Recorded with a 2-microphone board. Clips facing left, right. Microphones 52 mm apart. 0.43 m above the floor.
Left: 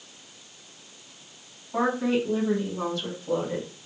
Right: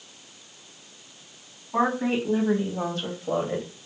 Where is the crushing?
No crushing in this recording.